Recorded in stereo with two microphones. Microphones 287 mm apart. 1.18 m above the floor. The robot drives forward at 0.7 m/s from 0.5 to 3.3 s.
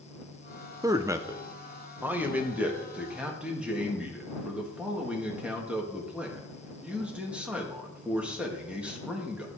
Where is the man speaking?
10° right (ahead or behind), 0.7 m; by 9.5 s 5° right (ahead or behind), 2 m.